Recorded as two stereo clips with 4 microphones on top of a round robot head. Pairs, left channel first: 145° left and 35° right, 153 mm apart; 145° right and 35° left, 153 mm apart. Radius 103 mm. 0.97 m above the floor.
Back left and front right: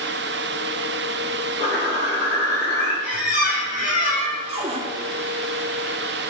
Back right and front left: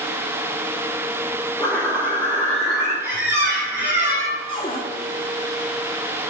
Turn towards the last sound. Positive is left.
turn(degrees=-85)